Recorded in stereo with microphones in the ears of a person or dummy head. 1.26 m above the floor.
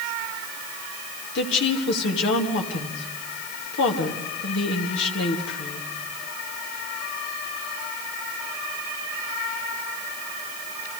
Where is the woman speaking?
60° left (ahead or behind), 2.5 m.